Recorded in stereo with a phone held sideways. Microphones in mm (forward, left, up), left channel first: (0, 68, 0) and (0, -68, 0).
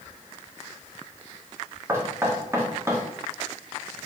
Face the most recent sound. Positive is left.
turn(degrees=-20)  # may be behind; listen again after turning